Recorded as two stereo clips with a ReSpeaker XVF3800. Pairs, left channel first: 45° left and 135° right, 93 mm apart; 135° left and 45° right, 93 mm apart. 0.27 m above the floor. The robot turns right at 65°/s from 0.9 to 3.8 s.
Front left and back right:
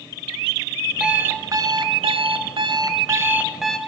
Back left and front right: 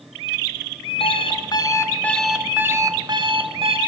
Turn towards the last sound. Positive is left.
turn(degrees=-35)